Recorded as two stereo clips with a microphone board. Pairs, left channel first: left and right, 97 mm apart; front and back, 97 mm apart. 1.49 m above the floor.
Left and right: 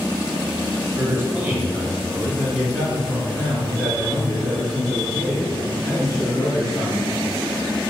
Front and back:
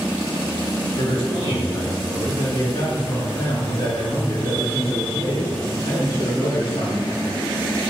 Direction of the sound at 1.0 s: 25° right.